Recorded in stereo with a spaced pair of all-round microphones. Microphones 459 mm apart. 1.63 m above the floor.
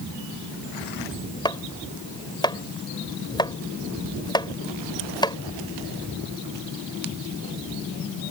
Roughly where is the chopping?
Centre.